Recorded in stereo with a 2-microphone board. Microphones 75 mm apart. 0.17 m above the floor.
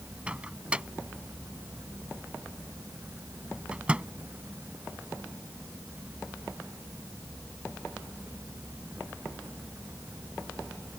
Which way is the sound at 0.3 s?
15° right (ahead or behind).